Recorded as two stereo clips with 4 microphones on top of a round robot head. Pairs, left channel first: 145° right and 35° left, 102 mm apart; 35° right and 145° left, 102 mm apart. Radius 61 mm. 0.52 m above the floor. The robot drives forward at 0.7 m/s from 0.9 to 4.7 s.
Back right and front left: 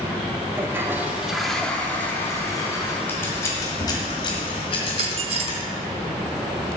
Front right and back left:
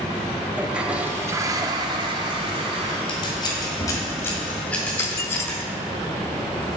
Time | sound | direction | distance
0.6 | a toilet flushing | 75° left | 0.8 m
3.1 | scissors | 75° right | 1.8 m
4.9 | a dropped coin | 30° left | 0.5 m